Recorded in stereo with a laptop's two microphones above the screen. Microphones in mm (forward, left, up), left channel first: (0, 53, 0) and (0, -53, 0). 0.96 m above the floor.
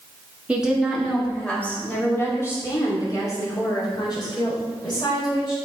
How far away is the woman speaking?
About 1.6 m.